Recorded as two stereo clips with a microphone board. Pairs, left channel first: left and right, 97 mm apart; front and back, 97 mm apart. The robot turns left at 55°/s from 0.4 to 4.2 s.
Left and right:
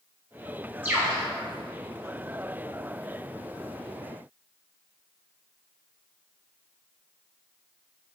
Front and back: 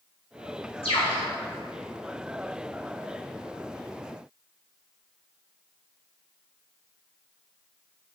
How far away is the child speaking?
I don't hear a child speaking.